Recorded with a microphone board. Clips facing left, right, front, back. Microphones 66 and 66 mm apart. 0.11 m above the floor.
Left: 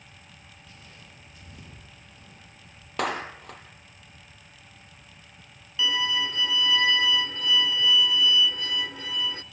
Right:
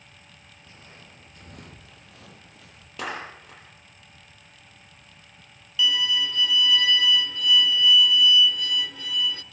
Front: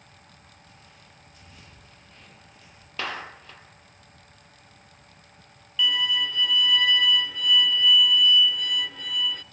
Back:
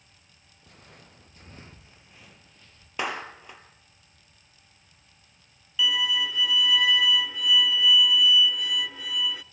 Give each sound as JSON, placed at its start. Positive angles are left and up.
{"t": 0.6, "sound": "footsteps", "azimuth_deg": -155, "distance_m": 3.0}
{"t": 3.0, "sound": "a clap", "azimuth_deg": 105, "distance_m": 2.5}
{"t": 5.8, "sound": "a violin", "azimuth_deg": 100, "distance_m": 0.5}